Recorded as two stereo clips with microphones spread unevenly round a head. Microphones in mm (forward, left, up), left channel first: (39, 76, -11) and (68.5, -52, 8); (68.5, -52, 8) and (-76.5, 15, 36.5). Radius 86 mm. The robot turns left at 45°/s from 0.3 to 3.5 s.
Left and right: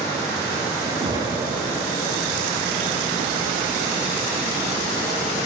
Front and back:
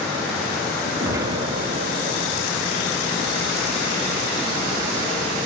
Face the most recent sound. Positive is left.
turn(degrees=115)